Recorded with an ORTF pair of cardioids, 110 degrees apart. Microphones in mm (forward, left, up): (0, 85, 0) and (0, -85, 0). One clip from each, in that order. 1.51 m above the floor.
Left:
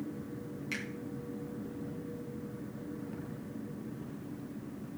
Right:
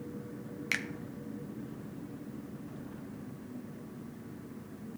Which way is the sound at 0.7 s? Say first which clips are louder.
Right 6 dB; 55° right.